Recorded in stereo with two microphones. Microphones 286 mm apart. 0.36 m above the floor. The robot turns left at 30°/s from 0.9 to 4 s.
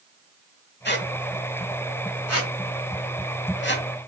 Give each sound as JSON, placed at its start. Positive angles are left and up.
{"t": 0.8, "sound": "a squeak", "side_deg": 35, "distance_m": 1.0}